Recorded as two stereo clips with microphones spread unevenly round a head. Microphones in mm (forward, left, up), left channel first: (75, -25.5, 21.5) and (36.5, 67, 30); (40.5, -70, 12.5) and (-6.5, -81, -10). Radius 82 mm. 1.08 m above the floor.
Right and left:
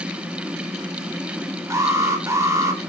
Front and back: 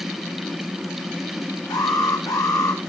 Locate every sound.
1.7 s an alarm: 50° left, 3 m